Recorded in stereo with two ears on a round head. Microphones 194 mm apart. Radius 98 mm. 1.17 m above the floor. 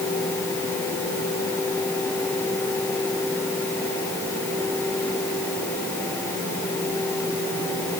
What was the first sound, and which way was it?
Only background noise.